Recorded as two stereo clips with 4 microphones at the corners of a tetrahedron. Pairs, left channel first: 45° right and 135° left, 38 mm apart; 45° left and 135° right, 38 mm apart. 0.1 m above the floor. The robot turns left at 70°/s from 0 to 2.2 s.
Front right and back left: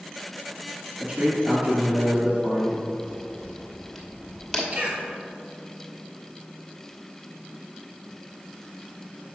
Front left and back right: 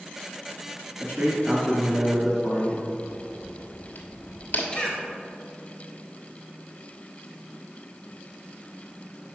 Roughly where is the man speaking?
Behind.